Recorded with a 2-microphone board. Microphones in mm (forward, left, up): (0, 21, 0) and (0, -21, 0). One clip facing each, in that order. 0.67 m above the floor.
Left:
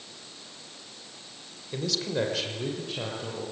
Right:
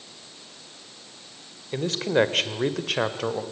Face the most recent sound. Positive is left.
turn(degrees=-75)  # may be behind; listen again after turning